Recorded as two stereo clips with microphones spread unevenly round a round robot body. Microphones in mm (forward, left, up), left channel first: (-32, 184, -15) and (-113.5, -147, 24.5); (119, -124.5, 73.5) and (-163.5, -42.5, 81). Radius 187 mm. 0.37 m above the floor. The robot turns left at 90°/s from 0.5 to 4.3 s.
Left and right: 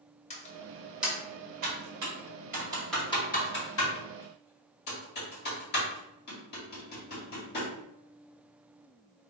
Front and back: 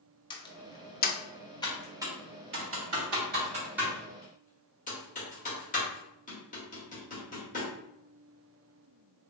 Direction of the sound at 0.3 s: 40° left.